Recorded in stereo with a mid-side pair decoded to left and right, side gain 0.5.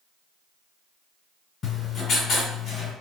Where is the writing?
55° left, 1.9 m.